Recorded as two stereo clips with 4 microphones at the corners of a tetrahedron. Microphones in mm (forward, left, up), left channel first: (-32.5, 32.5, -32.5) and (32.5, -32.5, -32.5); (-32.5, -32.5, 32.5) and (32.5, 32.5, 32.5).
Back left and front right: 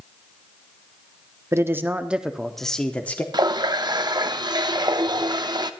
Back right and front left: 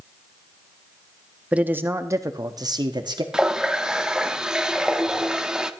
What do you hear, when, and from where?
1.5 s a man speaking: 20° right, 0.7 m; by 3.2 s 65° left, 1.0 m
3.3 s a running tap: 35° right, 0.6 m